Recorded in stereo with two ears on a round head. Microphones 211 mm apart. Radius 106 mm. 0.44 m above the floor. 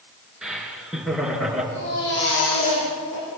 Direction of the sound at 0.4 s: 5° right (ahead or behind).